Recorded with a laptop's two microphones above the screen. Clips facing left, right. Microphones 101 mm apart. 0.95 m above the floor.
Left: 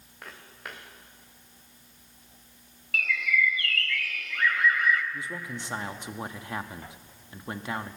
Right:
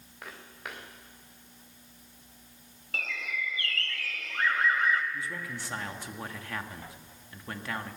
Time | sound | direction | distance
0.2 | footsteps | centre (ahead or behind) | 5.5 m
2.9 | a bird | 30° right (ahead or behind) | 1.5 m
5.1 | a man speaking | 20° left (ahead or behind) | 1.4 m